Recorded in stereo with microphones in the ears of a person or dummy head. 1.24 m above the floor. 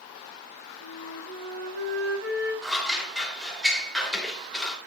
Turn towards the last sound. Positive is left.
turn(degrees=0)  # may be behind; listen again after turning